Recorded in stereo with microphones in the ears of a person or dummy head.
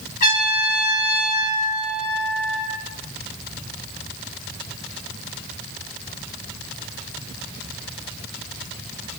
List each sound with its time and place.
0.2 s a trumpet: 45° left (ahead or behind), 1.8 m